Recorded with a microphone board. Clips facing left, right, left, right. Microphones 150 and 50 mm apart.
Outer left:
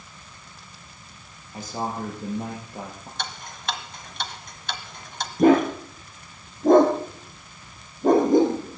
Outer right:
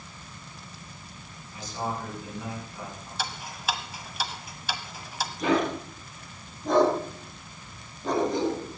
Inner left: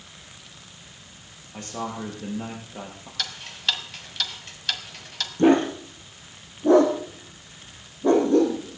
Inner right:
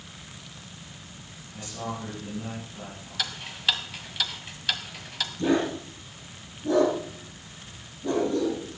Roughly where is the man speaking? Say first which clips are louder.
Outer left 3 dB, inner left 3 dB; left.